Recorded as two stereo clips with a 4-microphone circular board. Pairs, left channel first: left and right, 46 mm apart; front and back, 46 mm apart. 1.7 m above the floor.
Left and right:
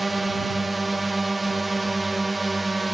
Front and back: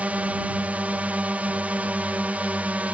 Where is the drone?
Straight behind.